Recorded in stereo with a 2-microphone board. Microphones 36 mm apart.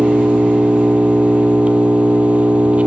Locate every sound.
0.0 s an engine running: 40° right (ahead or behind), 2 m